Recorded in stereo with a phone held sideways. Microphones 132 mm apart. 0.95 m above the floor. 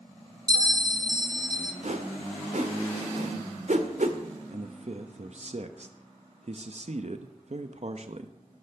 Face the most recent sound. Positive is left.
turn(degrees=-60)  # may be behind; listen again after turning